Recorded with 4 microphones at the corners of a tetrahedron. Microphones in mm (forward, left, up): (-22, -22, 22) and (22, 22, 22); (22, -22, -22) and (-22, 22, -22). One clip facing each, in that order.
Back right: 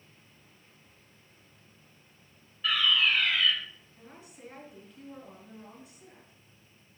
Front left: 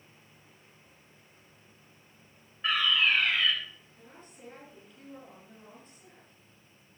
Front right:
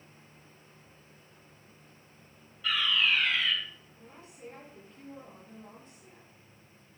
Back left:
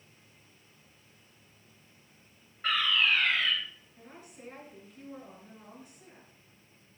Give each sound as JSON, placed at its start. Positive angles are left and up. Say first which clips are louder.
{"t": 2.6, "sound": "a fire alarm", "louder": "even, back left 1 dB", "azimuth_deg": 100, "distance_m": 3.0}
{"t": 4.0, "sound": "a woman speaking", "louder": "back right 4 dB, back left 2 dB", "azimuth_deg": 145, "distance_m": 6.0}